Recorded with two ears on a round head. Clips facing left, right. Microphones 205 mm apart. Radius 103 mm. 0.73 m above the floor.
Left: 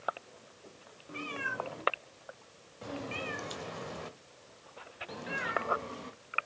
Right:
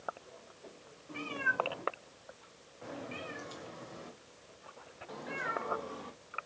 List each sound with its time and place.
1.1 s a cat meowing: 20° left (ahead or behind), 2.5 m; by 6.5 s 30° left (ahead or behind), 2.5 m